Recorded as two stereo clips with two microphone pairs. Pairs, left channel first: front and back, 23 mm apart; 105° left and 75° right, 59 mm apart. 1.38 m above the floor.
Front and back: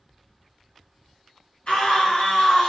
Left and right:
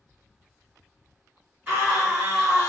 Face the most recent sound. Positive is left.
turn(degrees=-20)